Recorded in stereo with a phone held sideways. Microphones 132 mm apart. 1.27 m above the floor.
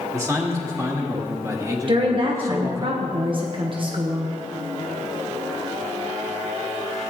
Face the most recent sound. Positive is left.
turn(degrees=-40)  # may be behind; listen again after turning